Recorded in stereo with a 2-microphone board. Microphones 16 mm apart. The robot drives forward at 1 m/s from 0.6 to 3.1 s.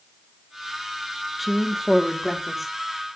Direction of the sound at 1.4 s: Centre (ahead or behind).